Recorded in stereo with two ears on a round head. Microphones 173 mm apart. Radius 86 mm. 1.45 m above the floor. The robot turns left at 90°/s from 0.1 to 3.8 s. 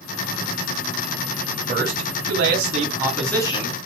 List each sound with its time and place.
1.7 s a man speaking: 40° right, 3.5 m; by 3.8 s 130° left, 3.5 m